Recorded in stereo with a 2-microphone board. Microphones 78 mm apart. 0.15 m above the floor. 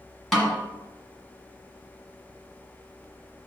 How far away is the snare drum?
About 1.7 m.